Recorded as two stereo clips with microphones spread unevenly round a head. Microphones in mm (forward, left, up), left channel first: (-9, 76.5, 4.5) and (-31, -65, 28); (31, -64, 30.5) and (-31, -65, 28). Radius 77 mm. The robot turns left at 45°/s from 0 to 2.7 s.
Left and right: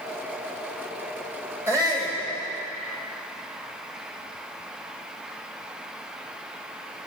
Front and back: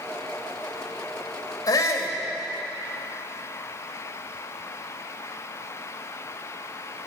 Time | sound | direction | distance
1.7 | a shout | 20° right | 2 m